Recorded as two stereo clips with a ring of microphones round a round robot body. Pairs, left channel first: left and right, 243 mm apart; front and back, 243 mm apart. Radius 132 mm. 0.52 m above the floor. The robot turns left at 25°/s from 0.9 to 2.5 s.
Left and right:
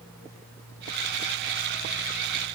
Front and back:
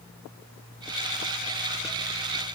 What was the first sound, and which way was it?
Only background noise.